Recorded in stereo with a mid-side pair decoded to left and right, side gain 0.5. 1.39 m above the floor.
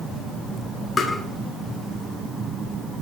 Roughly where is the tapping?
Ahead left.